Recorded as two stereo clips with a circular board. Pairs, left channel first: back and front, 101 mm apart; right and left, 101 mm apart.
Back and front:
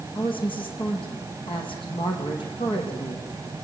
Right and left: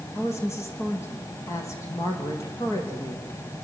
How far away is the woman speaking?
About 5.5 m.